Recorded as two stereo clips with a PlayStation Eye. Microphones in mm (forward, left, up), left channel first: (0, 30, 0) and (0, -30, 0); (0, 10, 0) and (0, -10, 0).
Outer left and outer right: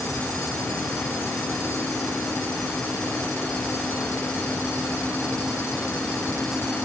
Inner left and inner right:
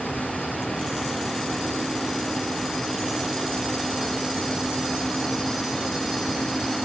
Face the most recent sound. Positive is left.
No sound to turn to.